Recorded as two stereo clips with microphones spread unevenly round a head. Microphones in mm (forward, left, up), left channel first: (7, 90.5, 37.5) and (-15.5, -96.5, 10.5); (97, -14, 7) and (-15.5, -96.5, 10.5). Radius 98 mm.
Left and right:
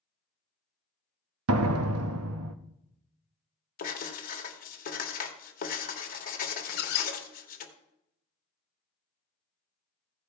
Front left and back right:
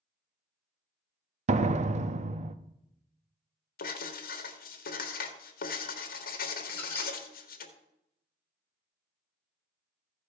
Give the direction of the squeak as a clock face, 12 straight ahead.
8 o'clock.